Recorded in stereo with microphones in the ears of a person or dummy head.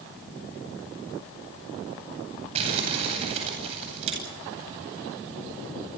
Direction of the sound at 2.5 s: 35° right (ahead or behind).